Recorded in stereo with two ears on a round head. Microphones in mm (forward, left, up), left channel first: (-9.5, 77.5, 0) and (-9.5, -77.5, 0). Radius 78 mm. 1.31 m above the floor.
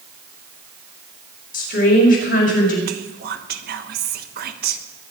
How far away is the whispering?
About 1.4 m.